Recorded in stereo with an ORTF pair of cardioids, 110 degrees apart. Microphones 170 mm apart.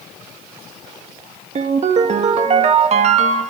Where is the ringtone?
40° right, 1.5 m.